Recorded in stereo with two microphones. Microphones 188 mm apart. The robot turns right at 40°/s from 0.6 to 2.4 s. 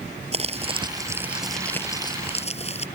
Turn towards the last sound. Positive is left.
turn(degrees=35)